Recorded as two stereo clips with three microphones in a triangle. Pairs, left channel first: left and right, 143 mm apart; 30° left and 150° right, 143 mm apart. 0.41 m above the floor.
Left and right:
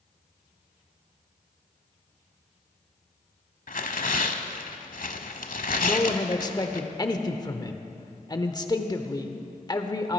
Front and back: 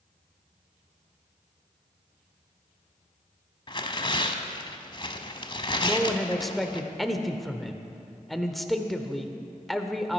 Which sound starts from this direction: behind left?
A man speaking, at 5.8 s.